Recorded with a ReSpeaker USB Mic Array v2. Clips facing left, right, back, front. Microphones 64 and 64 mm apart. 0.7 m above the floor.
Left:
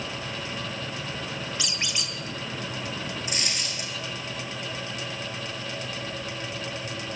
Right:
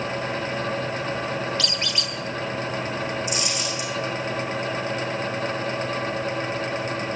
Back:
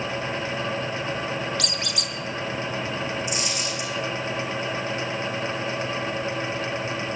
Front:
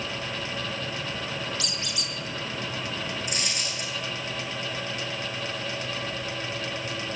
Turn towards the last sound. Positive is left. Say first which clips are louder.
# right 5 dB, back 4 dB
turn(degrees=45)